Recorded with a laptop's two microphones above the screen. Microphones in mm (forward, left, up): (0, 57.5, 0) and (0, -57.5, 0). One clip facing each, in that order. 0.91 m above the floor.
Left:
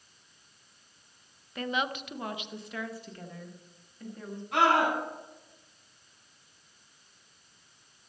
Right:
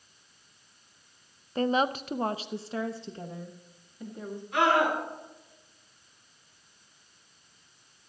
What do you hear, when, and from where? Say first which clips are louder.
1.6 s a woman speaking: right 6 dB; 30° right (ahead or behind), 0.6 m; by 4.4 s 15° right (ahead or behind), 1.7 m
4.5 s a scream: even; 65° left (ahead or behind), 7.5 m